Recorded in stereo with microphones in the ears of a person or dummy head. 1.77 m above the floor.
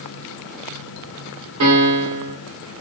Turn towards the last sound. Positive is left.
turn(degrees=-80)